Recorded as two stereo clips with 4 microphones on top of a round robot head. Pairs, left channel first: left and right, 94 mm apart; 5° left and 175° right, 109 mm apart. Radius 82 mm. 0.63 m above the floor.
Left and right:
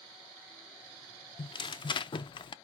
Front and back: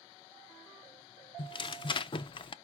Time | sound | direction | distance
1.4 | tearing paper | 50° left | 0.5 m